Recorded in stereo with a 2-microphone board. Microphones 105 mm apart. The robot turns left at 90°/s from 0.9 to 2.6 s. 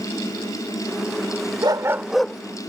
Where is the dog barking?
130° right; by 2.4 s 165° left.